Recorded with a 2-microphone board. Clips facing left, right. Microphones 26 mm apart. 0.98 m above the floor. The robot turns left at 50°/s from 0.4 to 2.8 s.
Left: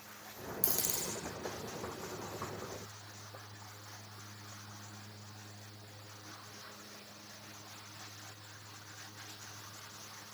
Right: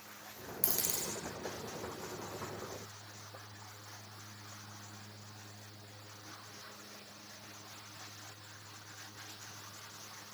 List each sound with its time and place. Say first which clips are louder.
0.6 s a dropped coin: even; 45° right (ahead or behind), 1.4 m; by 1.1 s 30° right (ahead or behind), 1.4 m